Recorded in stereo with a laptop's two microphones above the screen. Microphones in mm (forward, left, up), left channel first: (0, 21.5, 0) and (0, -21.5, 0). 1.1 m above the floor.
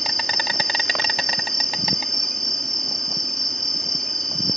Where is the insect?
5° left (ahead or behind).